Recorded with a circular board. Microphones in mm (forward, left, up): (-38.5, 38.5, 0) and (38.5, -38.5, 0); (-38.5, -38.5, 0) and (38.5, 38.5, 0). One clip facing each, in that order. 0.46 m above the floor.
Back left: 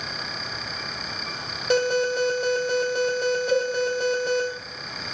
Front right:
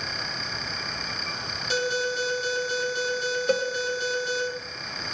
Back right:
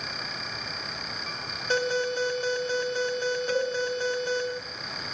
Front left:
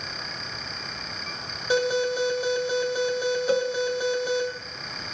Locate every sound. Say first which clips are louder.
1.7 s an alarm: back left 6 dB, front left 3 dB; 120° left, 3 m
3.5 s a cowbell: even, front left 4 dB; 15° right, 1.2 m